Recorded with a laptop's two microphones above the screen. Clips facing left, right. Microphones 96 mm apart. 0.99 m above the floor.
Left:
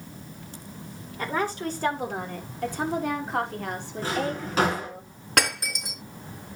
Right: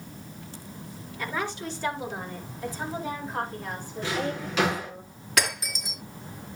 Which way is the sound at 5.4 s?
55° left (ahead or behind).